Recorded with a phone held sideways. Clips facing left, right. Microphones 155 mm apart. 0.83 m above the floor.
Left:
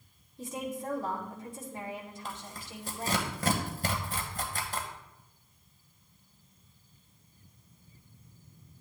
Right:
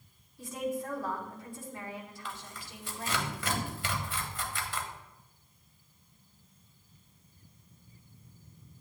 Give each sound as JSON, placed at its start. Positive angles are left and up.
{"t": 0.4, "sound": "a woman speaking", "side_deg": 20, "distance_m": 2.5}
{"t": 2.2, "sound": "tearing paper", "side_deg": 40, "distance_m": 1.5}